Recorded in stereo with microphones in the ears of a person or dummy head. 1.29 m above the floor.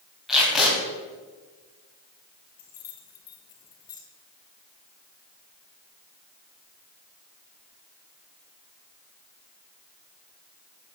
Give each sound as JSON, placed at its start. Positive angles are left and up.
{"t": 0.3, "sound": "tape being pulled", "side_deg": 0, "distance_m": 3.0}
{"t": 2.6, "sound": "keys jangling", "side_deg": 25, "distance_m": 1.0}